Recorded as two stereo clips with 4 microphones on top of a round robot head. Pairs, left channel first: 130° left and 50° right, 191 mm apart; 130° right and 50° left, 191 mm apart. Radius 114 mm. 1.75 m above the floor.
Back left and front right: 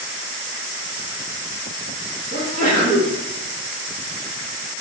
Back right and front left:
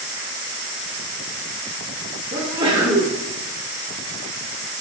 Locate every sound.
2.3 s a sneeze: 15° right, 0.7 m